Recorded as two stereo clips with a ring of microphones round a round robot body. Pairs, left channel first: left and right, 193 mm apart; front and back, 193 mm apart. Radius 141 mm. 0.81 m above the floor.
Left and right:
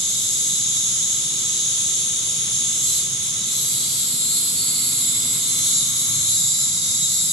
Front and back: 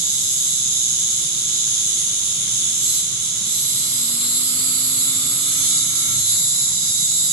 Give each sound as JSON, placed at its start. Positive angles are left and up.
{"t": 0.0, "sound": "an insect", "azimuth_deg": -175, "distance_m": 1.6}